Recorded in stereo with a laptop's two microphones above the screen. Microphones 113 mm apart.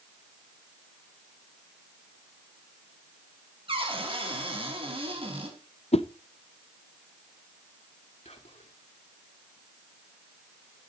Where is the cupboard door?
55° right (ahead or behind), 4 m.